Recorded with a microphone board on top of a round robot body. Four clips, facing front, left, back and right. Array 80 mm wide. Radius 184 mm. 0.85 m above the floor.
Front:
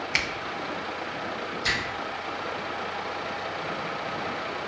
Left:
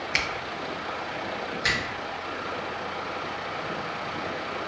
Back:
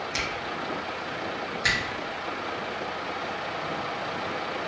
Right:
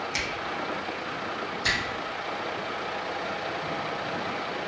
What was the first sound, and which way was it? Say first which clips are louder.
A finger snap: left 3 dB, front 4 dB; 45° left.